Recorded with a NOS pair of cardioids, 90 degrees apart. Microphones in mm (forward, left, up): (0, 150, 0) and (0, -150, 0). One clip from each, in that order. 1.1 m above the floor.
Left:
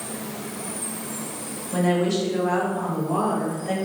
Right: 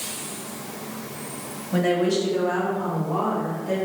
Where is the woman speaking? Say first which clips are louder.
Right 1 dB; 10° right, 1.0 m; by 3.8 s 50° left, 1.6 m.